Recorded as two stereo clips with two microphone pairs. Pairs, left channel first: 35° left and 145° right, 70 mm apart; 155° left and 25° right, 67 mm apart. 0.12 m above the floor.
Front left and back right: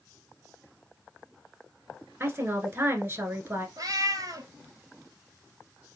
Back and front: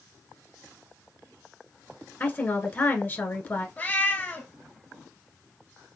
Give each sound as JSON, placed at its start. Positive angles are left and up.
{"t": 2.2, "sound": "a woman speaking", "azimuth_deg": -170, "distance_m": 1.2}
{"t": 3.8, "sound": "a cat meowing", "azimuth_deg": -150, "distance_m": 0.9}